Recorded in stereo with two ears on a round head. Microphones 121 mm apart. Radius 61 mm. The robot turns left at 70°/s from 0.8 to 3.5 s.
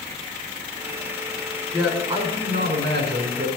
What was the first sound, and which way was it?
A man speaking, 5° right.